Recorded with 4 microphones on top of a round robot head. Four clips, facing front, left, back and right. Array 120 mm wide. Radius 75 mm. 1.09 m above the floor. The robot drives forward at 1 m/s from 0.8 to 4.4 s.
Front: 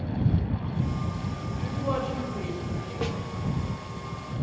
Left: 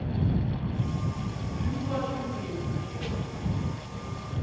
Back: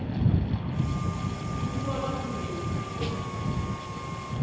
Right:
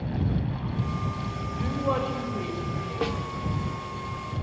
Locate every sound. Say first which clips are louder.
1.6 s a woman speaking: right 4 dB, front 3 dB; 70° right, 6 m; by 3.1 s 85° right, 5.5 m
3.0 s a snare drum: right 9 dB, front 3 dB; 80° right, 1.7 m; by 3.2 s 85° right, 1.6 m